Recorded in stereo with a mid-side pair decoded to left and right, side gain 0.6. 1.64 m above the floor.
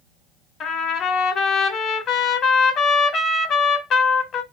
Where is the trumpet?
50° left, 0.8 m.